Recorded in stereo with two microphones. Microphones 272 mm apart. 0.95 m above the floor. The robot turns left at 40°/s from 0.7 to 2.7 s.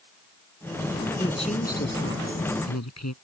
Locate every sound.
1.2 s a woman speaking: 165° left; by 3.1 s 105° left